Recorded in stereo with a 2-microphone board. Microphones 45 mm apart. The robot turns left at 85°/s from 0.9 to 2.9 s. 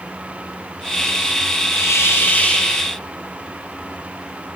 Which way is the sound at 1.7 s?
90° left.